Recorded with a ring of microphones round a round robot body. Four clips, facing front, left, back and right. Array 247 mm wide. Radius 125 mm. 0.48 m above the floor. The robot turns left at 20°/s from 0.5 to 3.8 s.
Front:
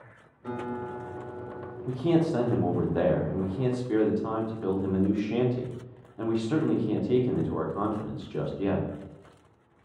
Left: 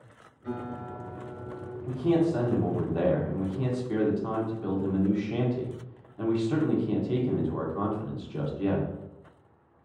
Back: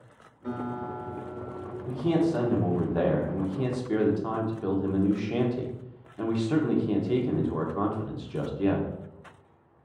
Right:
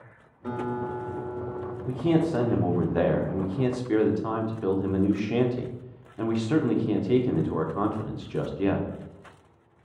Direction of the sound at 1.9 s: 60° right.